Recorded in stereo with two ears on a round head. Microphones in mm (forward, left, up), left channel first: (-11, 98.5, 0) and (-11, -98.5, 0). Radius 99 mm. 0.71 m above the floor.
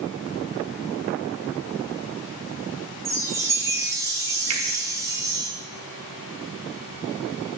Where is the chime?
15° right (ahead or behind), 0.8 m.